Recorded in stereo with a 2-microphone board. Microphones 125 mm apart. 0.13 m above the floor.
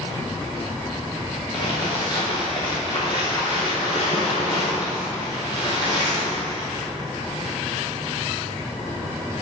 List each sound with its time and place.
1.5 s crumpling: 40° left (ahead or behind), 2 m